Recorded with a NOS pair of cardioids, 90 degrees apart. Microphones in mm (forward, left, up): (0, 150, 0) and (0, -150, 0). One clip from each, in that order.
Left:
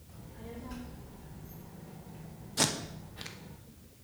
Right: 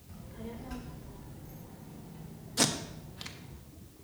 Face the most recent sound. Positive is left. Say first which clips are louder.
# right 1 dB
turn(degrees=0)